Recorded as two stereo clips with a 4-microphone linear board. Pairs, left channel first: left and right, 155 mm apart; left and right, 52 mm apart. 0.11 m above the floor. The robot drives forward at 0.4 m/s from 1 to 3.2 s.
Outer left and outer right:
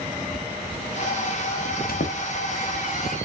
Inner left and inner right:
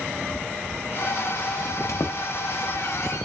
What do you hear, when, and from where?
1.6 s a squeak: 65° left (ahead or behind), 0.7 m